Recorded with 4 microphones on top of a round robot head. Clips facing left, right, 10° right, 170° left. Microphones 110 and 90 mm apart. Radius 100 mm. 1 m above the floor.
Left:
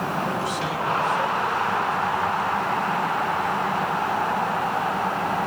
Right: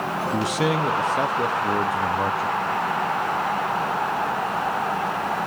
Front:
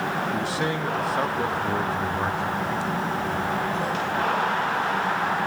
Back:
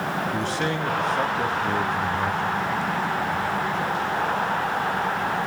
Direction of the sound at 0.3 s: 95° right.